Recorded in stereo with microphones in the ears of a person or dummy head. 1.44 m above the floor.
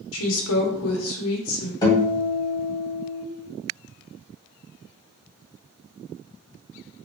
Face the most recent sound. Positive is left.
turn(degrees=30)  # may be behind; listen again after turning